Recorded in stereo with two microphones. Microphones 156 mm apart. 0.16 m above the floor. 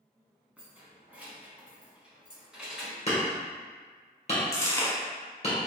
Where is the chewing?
20° left (ahead or behind), 1.0 m.